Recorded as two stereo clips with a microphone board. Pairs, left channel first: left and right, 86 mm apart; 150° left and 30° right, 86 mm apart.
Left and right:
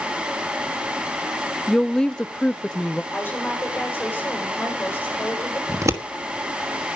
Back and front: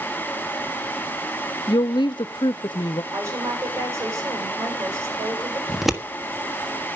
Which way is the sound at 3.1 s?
20° left.